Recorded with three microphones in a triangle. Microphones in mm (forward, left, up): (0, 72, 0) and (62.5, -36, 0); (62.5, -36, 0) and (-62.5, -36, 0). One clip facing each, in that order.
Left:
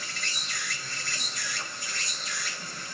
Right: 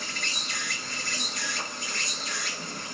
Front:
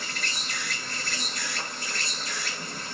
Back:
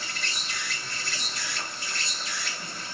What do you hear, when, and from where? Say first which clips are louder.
0.0 s an insect: right 3 dB, front 1 dB; 40° right, 3 m